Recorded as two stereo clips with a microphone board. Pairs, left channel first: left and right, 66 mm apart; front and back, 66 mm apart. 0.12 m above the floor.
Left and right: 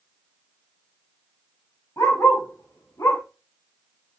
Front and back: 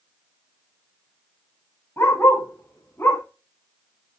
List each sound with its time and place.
2.0 s a dog barking: 50° left, 7.5 m; by 3.2 s 55° left, 7.5 m